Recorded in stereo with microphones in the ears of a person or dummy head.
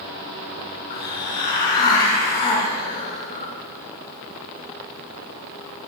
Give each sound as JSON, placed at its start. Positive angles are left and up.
{"t": 0.9, "sound": "a hiss", "side_deg": 25, "distance_m": 3.0}